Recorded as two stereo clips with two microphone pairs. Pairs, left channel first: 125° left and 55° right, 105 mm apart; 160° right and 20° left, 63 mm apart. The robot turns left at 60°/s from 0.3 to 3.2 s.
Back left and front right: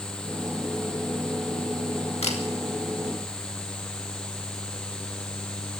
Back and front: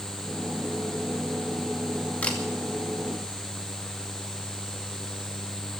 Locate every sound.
2.2 s a camera shutter: 135° left, 2.5 m; by 2.4 s 125° left, 2.5 m